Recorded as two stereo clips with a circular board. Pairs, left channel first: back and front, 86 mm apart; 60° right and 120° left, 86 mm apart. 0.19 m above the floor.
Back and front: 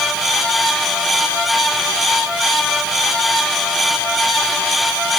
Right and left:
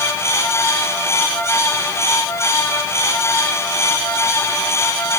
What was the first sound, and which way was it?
Only background noise.